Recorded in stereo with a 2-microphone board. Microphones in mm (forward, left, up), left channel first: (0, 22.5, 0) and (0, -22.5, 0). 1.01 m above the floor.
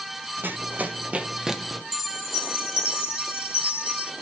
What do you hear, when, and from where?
0.4 s running footsteps: 50° right (ahead or behind), 2 m; by 1.8 s 10° left (ahead or behind), 1.2 m
1.9 s a chime: 80° left, 1.9 m